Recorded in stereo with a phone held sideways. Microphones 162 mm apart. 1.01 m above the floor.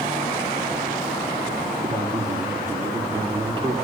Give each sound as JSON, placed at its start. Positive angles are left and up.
{"t": 1.8, "sound": "a man speaking", "side_deg": -30, "distance_m": 2.0}